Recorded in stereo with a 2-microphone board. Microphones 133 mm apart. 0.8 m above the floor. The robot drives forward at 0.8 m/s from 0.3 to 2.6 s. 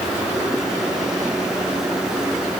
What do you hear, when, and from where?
Only background noise.